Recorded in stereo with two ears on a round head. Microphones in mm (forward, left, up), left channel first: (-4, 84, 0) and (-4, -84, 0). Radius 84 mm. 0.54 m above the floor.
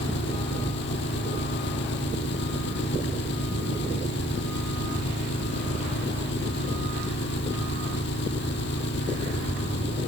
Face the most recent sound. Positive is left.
turn(degrees=65)  # may be behind; listen again after turning